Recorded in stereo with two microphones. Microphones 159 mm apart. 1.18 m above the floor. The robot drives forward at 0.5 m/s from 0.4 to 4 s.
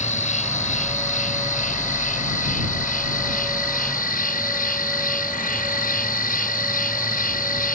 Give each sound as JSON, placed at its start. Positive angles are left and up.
{"t": 0.0, "sound": "an insect", "side_deg": 50}